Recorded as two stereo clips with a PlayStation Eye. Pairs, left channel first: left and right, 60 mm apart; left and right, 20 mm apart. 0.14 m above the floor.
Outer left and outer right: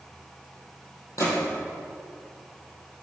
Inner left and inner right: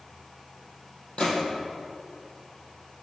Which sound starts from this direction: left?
A gunshot, at 1.2 s.